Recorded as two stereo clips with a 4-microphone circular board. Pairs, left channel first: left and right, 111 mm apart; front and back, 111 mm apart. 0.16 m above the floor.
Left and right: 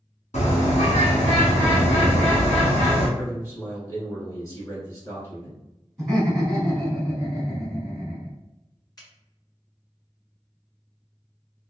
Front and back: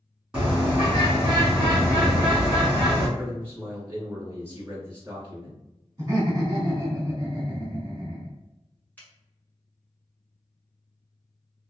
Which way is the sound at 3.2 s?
125° left.